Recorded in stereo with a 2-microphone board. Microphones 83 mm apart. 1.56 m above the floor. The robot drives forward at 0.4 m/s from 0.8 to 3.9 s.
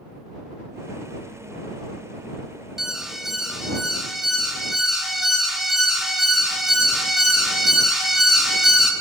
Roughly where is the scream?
I don't hear a scream.